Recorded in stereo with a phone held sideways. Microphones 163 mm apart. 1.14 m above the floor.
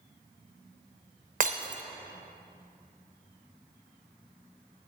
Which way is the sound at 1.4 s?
50° right (ahead or behind).